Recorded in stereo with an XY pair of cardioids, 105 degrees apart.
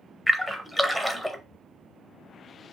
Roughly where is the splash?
Ahead.